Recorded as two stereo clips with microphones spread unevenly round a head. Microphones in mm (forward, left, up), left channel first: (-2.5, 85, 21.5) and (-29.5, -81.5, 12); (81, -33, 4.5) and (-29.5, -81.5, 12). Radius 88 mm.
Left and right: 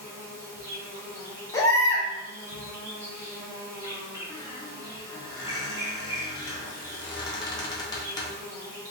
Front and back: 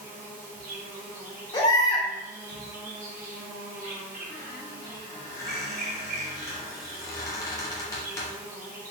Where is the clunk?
No clunk in this recording.